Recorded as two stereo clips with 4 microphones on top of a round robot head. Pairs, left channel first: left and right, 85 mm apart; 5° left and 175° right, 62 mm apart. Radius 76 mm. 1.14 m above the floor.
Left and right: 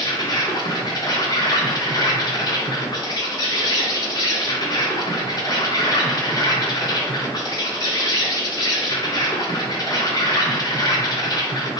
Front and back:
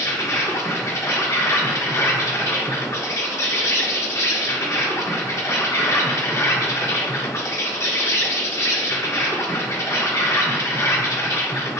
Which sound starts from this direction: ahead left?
An insect, at 0.0 s.